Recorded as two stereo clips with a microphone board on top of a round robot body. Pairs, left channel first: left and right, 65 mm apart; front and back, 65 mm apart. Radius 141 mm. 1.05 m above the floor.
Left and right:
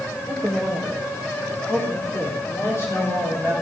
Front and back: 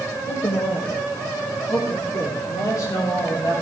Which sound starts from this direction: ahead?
A man speaking, at 0.3 s.